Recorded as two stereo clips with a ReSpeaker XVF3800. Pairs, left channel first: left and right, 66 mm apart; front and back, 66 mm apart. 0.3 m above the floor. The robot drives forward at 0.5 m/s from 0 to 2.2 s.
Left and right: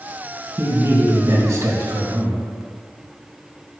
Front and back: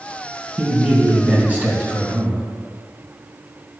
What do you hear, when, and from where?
0.6 s a man speaking: 110° right, 2.5 m; by 2.4 s 125° right, 3 m